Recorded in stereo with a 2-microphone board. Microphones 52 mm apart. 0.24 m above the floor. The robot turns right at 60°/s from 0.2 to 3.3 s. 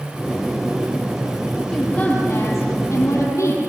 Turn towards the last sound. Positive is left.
turn(degrees=110)